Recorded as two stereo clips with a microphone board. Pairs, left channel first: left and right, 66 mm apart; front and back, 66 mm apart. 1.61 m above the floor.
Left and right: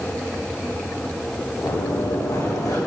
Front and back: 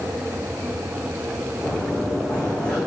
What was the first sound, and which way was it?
Running footsteps, 85° left.